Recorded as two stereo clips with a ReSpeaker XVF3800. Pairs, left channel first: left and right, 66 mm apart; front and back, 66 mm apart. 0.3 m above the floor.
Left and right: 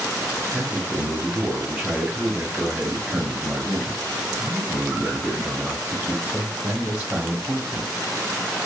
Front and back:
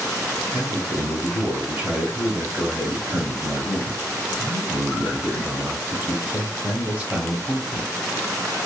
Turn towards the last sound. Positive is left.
turn(degrees=-140)